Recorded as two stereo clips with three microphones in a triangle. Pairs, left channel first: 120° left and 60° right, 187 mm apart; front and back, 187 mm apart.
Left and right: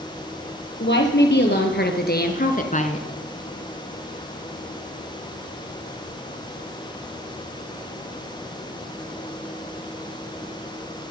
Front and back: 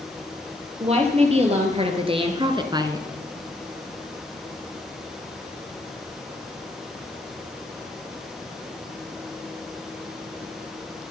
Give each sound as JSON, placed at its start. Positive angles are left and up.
{"t": 0.8, "sound": "a woman speaking", "azimuth_deg": 125, "distance_m": 4.5}